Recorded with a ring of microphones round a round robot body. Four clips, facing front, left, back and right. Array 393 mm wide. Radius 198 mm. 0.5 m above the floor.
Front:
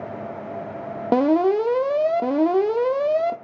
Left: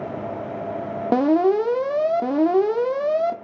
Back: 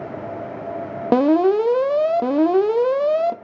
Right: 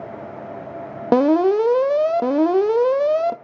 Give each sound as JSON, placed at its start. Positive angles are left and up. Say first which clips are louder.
{"t": 1.1, "sound": "an alarm", "louder": "right 2 dB, back 2 dB", "azimuth_deg": -130, "distance_m": 0.6}